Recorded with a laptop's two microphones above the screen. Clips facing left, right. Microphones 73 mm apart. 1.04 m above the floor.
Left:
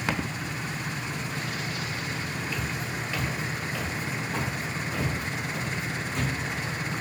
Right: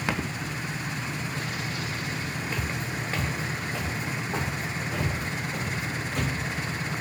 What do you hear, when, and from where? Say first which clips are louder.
2.5 s footsteps: right 1 dB; 30° right (ahead or behind), 1.1 m; by 6.3 s 15° right (ahead or behind), 3 m